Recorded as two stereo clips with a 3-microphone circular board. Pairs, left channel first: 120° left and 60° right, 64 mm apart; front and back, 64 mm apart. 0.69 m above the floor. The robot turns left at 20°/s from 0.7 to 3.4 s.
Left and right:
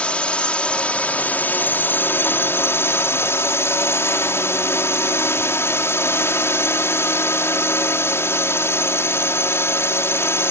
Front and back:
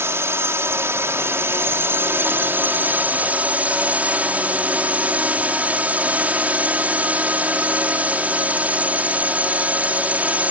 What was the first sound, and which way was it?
A drone, straight behind.